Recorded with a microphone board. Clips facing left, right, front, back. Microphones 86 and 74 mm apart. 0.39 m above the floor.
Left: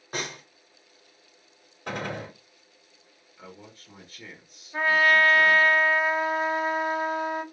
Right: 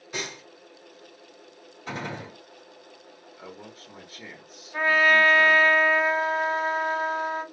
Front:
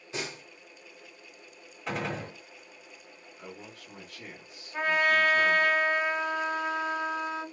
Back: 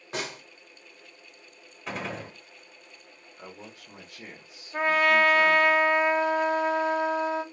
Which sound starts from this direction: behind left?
A snare drum, at 0.1 s.